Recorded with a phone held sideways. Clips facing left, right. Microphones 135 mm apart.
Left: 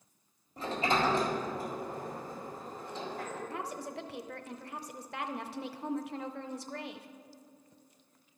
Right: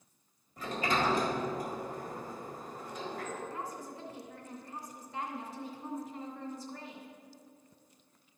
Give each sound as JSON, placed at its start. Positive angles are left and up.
{"t": 0.6, "sound": "a sliding door", "side_deg": 30, "distance_m": 1.7}
{"t": 3.5, "sound": "a woman speaking", "side_deg": 70, "distance_m": 0.6}